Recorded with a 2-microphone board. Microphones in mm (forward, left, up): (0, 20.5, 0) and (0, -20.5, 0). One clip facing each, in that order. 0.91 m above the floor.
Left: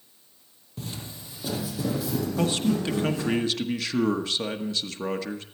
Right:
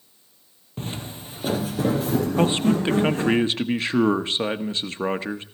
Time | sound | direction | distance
0.8 | footsteps | 40° right (ahead or behind) | 1.5 m
2.4 | a man speaking | 30° right (ahead or behind) | 1.1 m